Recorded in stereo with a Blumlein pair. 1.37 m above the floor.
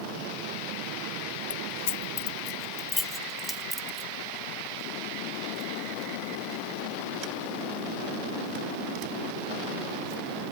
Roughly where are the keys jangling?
Ahead left.